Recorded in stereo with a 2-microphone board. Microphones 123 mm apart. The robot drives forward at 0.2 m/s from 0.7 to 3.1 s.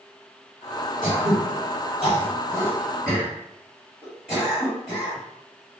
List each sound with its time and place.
1.0 s throat clearing: 5° right (ahead or behind), 1.5 m